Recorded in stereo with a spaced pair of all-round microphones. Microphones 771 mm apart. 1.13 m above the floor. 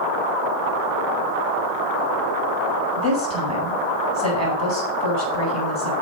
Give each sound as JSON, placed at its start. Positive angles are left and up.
{"t": 3.0, "sound": "a woman speaking", "side_deg": 20, "distance_m": 4.0}